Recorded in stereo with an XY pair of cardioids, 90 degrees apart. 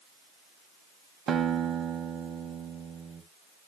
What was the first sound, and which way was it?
A guitar, 65° right.